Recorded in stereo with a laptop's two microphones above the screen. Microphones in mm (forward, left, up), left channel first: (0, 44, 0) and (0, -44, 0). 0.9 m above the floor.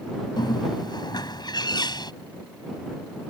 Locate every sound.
0.4 s a bird: 55° left (ahead or behind)